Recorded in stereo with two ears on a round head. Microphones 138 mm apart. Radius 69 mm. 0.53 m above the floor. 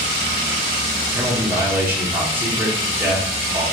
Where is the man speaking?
15° right (ahead or behind), 1.5 m.